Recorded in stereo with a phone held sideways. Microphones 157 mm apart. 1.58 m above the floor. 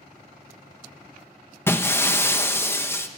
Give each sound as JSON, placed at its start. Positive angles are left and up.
{"t": 1.7, "sound": "breaking glass", "side_deg": 15, "distance_m": 0.9}